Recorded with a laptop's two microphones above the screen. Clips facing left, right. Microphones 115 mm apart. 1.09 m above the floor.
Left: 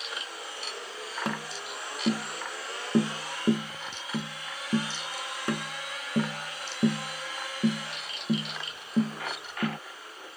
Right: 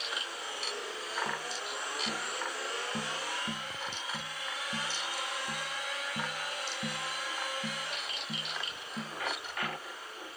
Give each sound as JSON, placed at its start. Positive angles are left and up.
{"t": 1.2, "sound": "tapping", "side_deg": 85}